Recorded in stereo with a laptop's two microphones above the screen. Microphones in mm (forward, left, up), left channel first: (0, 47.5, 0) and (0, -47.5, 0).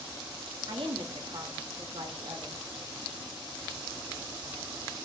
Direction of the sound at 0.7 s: 60° right (ahead or behind).